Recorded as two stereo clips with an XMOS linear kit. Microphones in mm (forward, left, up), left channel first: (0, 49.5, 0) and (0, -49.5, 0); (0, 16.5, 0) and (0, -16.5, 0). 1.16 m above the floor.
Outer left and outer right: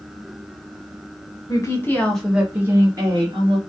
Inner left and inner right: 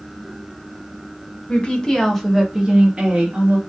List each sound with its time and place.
1.5 s a woman speaking: 35° left (ahead or behind), 0.7 m; by 3.6 s 55° right (ahead or behind), 0.9 m